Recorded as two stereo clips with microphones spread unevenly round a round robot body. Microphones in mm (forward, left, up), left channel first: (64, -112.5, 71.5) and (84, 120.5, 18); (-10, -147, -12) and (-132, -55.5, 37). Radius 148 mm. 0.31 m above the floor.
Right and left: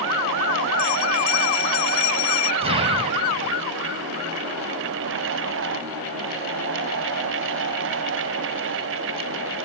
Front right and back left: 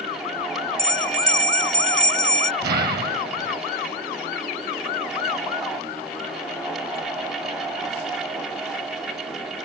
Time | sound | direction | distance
0.8 | a bell | 115° right | ?
2.6 | an explosion | 135° left | ?